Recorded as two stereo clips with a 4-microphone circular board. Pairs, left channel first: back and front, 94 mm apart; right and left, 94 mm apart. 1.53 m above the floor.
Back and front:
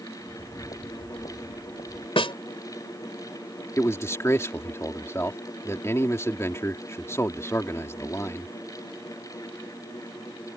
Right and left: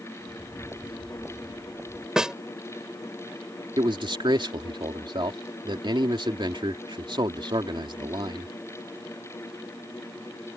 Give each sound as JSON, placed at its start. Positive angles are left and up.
{"t": 0.2, "sound": "footsteps", "azimuth_deg": 155}
{"t": 2.2, "sound": "a snare drum", "azimuth_deg": 175}
{"t": 3.8, "sound": "a man speaking", "azimuth_deg": 120}